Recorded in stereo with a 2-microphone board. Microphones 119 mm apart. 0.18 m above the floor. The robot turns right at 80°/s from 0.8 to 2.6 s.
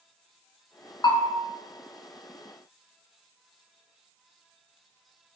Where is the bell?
40° left (ahead or behind), 0.6 m; by 1.4 s 55° left (ahead or behind), 0.6 m.